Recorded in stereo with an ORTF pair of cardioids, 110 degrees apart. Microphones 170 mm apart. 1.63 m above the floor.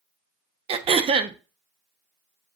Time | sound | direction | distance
0.7 | throat clearing | 40° right | 0.8 m